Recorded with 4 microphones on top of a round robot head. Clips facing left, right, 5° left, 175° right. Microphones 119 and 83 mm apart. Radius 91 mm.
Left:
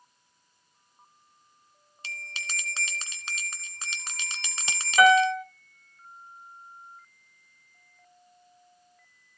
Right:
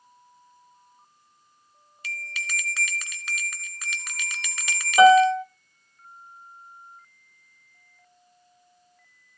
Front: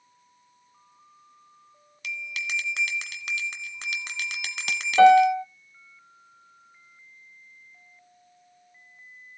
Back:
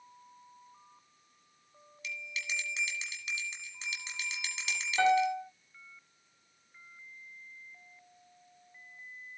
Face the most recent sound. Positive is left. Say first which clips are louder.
# right 5 dB, front 12 dB
turn(degrees=-20)